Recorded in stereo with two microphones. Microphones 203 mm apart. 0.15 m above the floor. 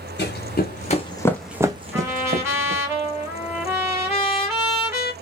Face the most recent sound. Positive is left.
turn(degrees=-10)  # may be behind; listen again after turning